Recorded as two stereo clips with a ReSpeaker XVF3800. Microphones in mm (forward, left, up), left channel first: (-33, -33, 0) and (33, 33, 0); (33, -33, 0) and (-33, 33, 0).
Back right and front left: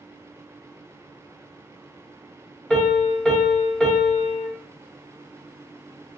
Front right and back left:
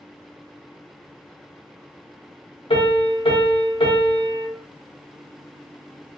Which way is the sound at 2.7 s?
55° right.